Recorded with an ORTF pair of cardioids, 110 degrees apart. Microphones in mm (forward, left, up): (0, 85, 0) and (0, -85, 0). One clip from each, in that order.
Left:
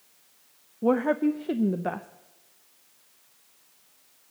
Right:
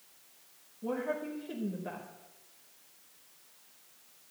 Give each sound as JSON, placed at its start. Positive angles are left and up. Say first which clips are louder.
{"t": 0.8, "sound": "a woman speaking", "louder": "left 11 dB", "azimuth_deg": 70, "distance_m": 0.7}